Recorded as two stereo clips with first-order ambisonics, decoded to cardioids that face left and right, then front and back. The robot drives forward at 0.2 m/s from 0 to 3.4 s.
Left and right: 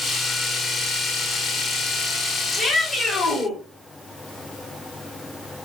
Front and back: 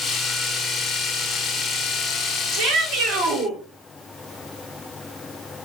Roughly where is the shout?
Behind.